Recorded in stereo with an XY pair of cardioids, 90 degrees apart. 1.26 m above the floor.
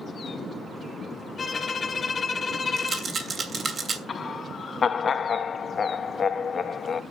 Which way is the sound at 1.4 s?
40° left.